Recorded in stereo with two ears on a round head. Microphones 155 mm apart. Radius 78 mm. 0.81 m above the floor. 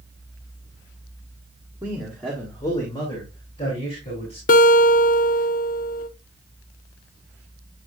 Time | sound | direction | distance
1.8 | a man speaking | 15° right (ahead or behind) | 1.4 m
4.5 | a guitar | 50° left (ahead or behind) | 0.7 m